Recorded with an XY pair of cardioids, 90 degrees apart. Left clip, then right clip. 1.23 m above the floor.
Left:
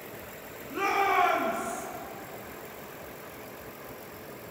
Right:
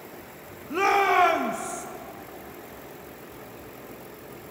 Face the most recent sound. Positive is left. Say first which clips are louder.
# right 5 dB
turn(degrees=-65)